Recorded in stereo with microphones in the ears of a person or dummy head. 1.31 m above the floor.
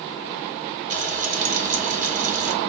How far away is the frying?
About 0.8 m.